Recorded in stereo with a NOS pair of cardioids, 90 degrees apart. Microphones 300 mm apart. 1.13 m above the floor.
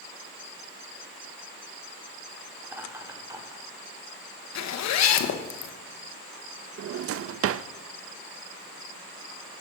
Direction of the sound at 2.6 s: 5° right.